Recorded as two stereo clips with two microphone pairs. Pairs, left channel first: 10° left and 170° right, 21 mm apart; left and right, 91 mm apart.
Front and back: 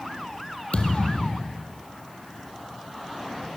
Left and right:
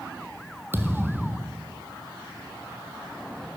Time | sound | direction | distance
0.7 | a thud | 25° right | 2 m